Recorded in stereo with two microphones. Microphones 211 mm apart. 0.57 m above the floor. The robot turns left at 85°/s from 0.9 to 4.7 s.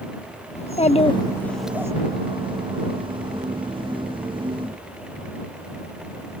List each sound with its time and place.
0.6 s a child speaking: 60° left; by 1.9 s 25° right